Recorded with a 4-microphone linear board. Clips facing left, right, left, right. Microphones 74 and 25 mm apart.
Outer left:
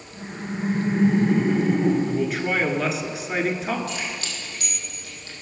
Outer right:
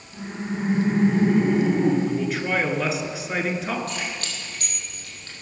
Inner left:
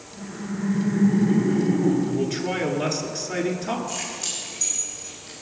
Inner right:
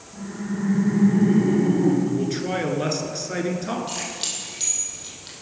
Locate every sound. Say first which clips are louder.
0.1 s laughter: outer right 2 dB, inner right 2 dB; 20° right (ahead or behind), 4.5 m; by 1.9 s 30° right (ahead or behind), 3 m
2.0 s a man speaking: outer left 1 dB, inner right 1 dB; centre (ahead or behind), 1.4 m
3.9 s keys jangling: even, inner right 1 dB; 45° right (ahead or behind), 3 m